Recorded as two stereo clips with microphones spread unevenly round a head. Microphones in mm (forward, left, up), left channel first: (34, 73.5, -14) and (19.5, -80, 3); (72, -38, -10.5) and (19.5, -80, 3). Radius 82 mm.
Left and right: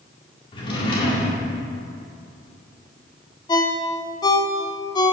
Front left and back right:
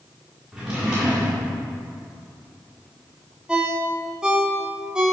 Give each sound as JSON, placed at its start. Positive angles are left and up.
{"t": 0.5, "sound": "a drawer", "azimuth_deg": 145, "distance_m": 1.9}
{"t": 3.5, "sound": "a ringtone", "azimuth_deg": 150, "distance_m": 0.8}